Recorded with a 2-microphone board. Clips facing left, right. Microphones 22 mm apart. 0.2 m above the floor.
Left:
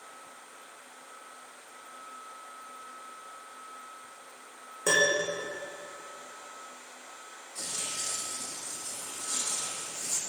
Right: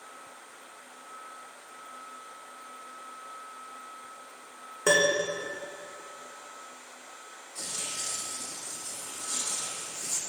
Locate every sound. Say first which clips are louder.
4.9 s a piano: right 1 dB; 20° right (ahead or behind), 3.5 m
7.5 s tearing paper: even; centre (ahead or behind), 2.5 m